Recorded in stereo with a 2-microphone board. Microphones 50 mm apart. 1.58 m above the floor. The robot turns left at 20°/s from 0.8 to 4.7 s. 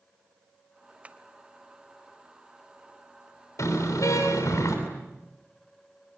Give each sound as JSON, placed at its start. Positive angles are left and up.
{"t": 1.0, "sound": "tapping", "side_deg": -25, "distance_m": 1.0}
{"t": 3.6, "sound": "a car horn", "side_deg": 75, "distance_m": 7.0}